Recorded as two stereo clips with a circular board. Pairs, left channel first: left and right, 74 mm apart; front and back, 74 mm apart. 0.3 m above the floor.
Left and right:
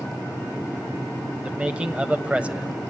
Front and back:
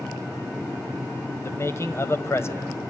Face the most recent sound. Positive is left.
turn(degrees=-25)